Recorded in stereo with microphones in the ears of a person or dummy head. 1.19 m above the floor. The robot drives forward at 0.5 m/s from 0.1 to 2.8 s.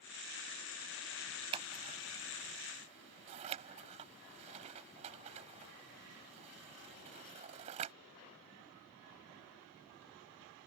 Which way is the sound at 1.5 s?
35° right (ahead or behind).